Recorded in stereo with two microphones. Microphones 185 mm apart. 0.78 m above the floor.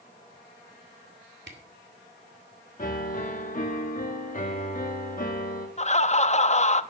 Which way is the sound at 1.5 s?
70° right (ahead or behind).